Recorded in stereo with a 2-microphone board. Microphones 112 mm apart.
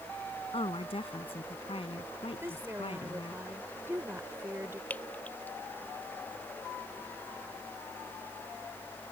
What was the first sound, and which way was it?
A woman speaking, 60° left (ahead or behind).